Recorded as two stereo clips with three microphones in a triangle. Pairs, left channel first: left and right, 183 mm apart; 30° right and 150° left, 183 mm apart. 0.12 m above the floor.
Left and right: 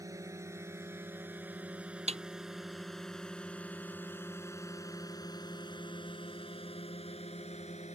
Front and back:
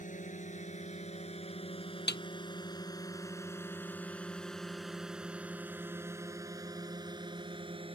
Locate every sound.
0.0 s a drone: 25° right; by 8.0 s 110° left
2.1 s a snare drum: 40° right